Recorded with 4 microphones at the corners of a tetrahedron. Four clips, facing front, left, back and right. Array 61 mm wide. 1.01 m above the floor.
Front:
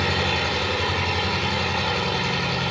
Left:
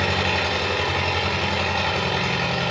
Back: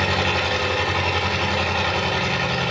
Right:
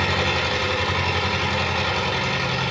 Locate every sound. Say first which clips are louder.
0.0 s an engine running: even, back 2 dB; 140° left, 4 m